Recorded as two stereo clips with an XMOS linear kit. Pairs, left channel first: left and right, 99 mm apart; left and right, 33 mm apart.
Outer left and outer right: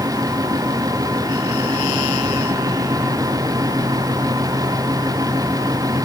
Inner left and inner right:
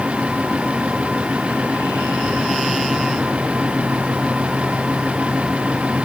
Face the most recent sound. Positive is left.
No sound to turn to.